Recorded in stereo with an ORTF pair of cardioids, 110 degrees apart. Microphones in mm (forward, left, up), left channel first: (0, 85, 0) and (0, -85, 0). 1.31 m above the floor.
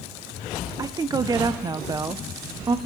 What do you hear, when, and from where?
0.8 s a woman speaking: 25° right, 0.6 m